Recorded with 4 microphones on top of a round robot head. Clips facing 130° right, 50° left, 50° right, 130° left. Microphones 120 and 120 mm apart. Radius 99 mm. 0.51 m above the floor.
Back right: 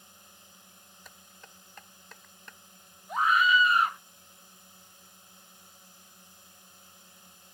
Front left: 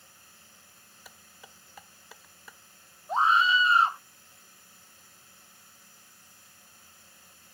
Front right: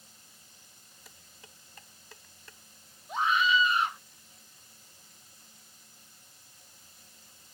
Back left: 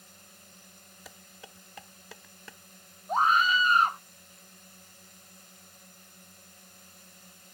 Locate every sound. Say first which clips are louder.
0.0 s a drone: back right 2 dB, back left 5 dB; 160° left
1.1 s dishes clattering: front left 2 dB, back left 7 dB; 135° left
3.1 s a scream: front left 1 dB, back left 2 dB; 100° left